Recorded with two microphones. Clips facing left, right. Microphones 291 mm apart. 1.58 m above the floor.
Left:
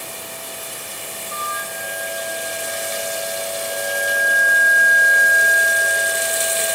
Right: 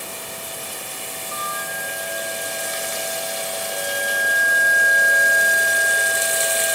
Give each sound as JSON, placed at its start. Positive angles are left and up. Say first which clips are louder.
{"t": 1.3, "sound": "a flute", "louder": "even", "side_deg": -35, "distance_m": 1.6}